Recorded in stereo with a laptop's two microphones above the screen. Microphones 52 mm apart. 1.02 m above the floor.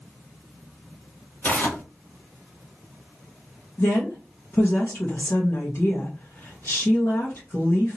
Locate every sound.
1.4 s tearing paper: 40° left (ahead or behind), 1.2 m
3.8 s a woman speaking: 55° left (ahead or behind), 1.1 m